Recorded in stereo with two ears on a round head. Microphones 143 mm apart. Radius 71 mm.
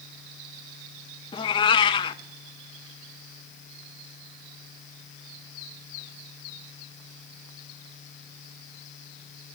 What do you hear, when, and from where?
1.3 s a cat meowing: 30° left (ahead or behind), 0.7 m